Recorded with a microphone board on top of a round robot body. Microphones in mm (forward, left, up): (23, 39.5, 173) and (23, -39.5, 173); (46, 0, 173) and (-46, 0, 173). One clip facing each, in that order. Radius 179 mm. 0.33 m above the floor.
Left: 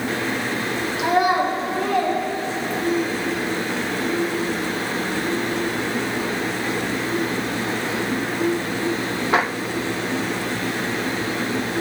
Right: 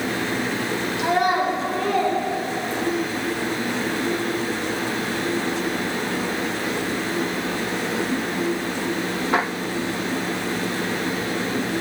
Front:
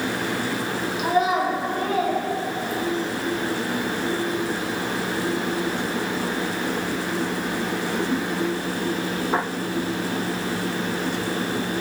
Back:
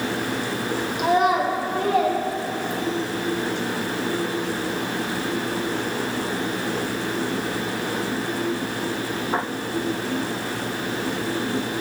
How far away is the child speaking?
About 1.6 m.